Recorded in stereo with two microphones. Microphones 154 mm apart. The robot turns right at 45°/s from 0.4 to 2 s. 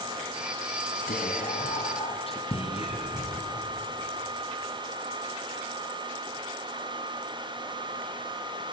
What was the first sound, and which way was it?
Whispering, 95° left.